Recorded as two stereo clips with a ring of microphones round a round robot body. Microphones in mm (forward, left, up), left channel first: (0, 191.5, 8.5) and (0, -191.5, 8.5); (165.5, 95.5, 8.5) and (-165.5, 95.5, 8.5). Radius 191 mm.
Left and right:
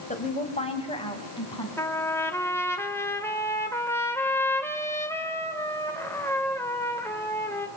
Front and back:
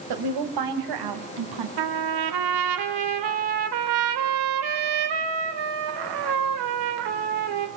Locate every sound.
0.1 s a woman speaking: 165° left, 3 m; by 1.7 s 170° left, 4.5 m
1.8 s a trumpet: 175° left, 2.0 m